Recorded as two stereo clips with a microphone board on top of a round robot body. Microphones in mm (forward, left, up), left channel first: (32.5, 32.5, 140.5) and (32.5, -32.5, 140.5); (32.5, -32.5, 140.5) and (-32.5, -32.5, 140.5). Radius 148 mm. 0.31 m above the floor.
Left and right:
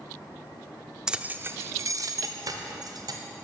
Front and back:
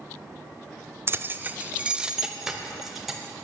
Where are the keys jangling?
160° right, 0.6 m; by 3.2 s 90° right, 1.5 m.